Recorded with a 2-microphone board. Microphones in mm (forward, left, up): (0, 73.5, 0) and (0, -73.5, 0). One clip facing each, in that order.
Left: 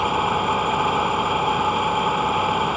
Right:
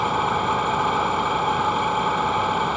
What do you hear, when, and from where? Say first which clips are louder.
0.0 s an engine running: left 1 dB; 10° left (ahead or behind)